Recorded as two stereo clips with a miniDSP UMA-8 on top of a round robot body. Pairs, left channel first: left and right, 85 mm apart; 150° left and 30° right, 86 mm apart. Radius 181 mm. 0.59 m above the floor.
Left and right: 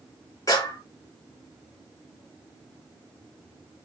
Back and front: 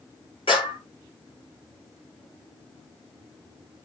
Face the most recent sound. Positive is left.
turn(degrees=140)